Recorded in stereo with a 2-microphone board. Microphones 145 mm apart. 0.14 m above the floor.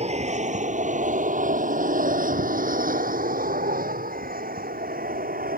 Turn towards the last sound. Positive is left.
turn(degrees=-75)  # may be behind; listen again after turning